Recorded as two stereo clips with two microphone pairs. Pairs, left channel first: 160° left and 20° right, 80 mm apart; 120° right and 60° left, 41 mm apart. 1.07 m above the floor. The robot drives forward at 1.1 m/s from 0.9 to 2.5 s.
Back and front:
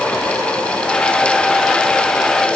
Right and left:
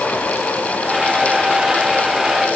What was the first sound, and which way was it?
Only background noise.